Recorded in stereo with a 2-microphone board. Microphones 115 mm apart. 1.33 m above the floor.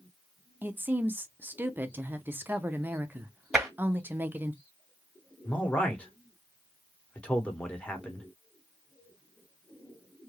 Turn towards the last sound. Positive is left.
turn(degrees=10)  # may be behind; listen again after turning